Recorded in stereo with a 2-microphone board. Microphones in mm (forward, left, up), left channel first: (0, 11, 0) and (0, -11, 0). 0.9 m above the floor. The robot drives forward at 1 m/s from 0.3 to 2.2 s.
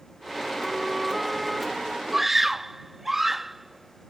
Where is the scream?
5° right (ahead or behind); by 4.1 s 10° right (ahead or behind).